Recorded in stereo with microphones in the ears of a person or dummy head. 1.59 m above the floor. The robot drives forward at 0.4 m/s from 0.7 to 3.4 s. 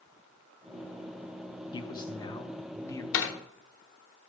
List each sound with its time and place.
1.7 s a man speaking: 20° left (ahead or behind), 0.8 m; by 3.0 s 15° left (ahead or behind), 1.2 m
3.1 s a door slam: 70° left (ahead or behind), 1.1 m